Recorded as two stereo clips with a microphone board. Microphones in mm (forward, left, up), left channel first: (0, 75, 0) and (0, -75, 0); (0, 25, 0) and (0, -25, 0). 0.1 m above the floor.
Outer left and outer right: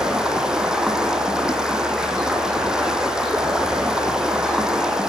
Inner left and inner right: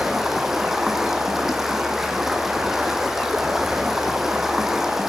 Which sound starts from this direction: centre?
Running water, at 0.0 s.